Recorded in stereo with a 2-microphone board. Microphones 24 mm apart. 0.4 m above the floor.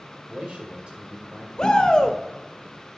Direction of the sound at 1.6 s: 35° left (ahead or behind).